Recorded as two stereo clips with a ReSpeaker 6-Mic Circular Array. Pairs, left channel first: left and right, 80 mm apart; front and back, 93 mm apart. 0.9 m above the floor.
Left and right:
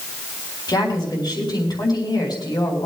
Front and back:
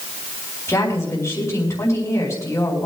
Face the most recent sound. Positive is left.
turn(degrees=60)